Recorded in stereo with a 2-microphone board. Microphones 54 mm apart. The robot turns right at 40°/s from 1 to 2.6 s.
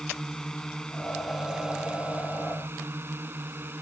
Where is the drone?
10° left (ahead or behind); by 3.8 s 40° right (ahead or behind).